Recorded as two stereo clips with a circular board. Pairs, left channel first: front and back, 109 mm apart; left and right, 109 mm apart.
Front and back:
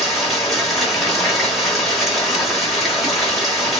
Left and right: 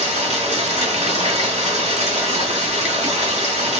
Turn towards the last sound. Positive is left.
turn(degrees=-90)